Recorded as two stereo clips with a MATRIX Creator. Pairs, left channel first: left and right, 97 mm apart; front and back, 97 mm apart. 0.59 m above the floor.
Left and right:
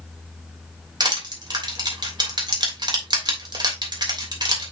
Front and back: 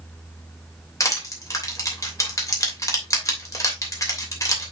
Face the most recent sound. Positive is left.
turn(degrees=-55)